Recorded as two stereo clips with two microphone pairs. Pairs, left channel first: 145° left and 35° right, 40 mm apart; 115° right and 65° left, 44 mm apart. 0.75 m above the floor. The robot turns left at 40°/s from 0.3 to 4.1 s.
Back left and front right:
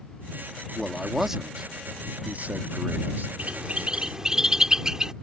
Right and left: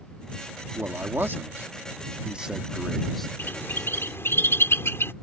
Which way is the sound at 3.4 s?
80° right.